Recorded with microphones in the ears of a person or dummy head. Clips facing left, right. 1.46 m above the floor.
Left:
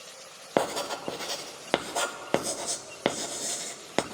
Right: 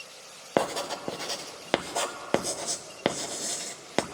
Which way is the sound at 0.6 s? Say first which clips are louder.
Even; 5° right (ahead or behind).